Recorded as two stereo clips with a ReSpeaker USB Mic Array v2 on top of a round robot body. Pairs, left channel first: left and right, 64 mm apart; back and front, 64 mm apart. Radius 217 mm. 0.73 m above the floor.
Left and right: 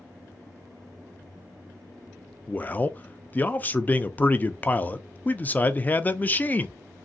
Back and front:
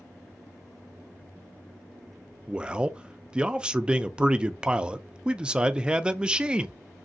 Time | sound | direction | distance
2.5 | a man speaking | 60° left | 0.6 m